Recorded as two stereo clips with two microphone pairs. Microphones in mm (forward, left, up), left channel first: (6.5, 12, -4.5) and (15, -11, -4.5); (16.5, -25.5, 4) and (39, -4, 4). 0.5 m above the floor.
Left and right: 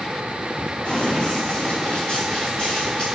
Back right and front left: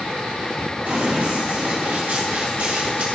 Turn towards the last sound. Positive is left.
turn(degrees=55)